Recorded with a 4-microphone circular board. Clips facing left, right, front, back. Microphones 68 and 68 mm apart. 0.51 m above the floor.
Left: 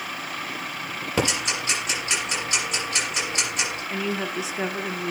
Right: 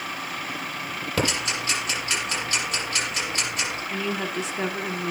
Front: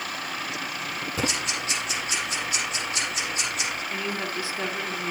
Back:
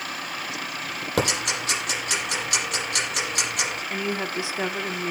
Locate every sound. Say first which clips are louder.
1.2 s ticking: left 1 dB, back 5 dB; 160° left, 8 m
3.9 s a woman speaking: left 1 dB, back 2 dB; 175° left, 1.1 m